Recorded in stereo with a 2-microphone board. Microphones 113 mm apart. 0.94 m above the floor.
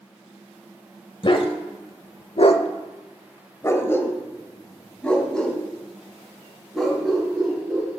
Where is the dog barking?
50° left (ahead or behind), 1.3 m; by 7.9 s centre (ahead or behind), 4.5 m.